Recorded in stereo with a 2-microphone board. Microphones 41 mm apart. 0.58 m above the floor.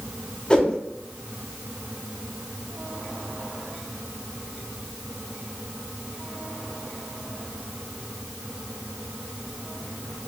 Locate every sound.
0.5 s a whoosh: 20° left (ahead or behind), 0.6 m